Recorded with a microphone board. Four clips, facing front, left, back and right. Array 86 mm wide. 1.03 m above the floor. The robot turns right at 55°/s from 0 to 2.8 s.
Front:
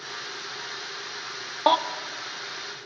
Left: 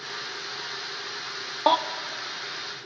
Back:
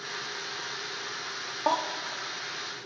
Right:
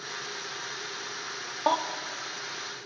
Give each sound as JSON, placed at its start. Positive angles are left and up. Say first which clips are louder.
{"t": 1.7, "sound": "a baby crying", "louder": "left 4 dB, front 6 dB", "azimuth_deg": 35, "distance_m": 0.5}